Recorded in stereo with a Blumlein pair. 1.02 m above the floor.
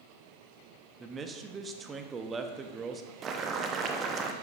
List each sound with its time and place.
1.0 s a man speaking: 20° right, 1.1 m
3.2 s boiling: 25° right, 0.9 m